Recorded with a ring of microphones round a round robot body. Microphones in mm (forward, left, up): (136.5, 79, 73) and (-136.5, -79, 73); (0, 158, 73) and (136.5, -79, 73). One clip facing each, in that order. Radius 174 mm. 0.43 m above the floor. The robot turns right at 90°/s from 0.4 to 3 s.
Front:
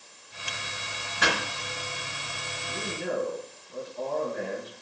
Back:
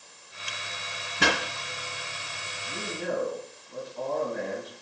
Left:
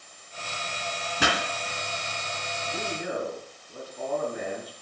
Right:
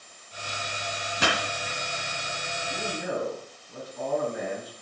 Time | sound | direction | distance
1.2 | a pop | 150° left | 2.5 m
2.7 | a man speaking | 135° right | 5.5 m